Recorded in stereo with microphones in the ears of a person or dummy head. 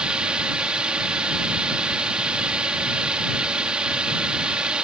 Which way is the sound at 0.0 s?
5° right (ahead or behind).